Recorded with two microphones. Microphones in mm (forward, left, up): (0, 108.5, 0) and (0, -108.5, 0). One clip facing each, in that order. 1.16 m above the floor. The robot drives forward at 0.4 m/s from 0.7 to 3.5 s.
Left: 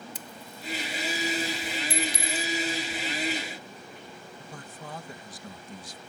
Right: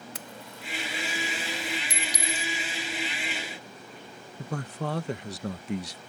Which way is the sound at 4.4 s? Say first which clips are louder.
Right 14 dB; 65° right (ahead or behind).